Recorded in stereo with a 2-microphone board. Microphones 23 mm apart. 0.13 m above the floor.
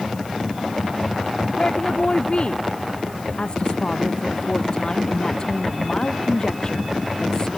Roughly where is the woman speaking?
Left.